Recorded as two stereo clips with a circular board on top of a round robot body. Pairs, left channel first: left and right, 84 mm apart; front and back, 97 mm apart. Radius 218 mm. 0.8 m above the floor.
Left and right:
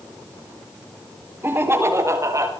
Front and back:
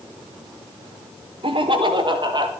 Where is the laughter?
155° right, 4 m; by 2.5 s 140° right, 5 m.